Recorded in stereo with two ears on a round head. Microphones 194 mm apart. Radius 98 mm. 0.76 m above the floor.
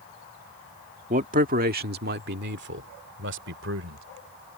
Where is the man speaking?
35° right (ahead or behind); by 4.0 s 60° right (ahead or behind).